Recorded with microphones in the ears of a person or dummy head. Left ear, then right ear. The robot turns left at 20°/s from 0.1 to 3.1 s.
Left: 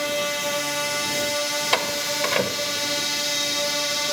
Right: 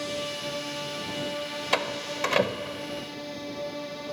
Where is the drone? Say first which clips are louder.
Left 8 dB; 130° left; by 4.1 s 70° left.